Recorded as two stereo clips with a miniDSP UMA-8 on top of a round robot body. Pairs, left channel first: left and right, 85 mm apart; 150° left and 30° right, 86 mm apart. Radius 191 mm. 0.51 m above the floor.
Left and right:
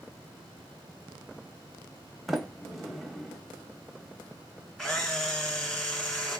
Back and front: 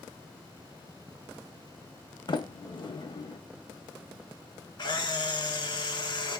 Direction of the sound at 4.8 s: 170° left.